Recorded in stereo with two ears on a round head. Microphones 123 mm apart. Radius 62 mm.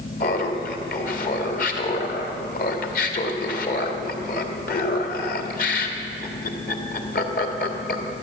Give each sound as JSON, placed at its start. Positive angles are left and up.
{"t": 0.2, "sound": "laughter", "side_deg": 65, "distance_m": 1.8}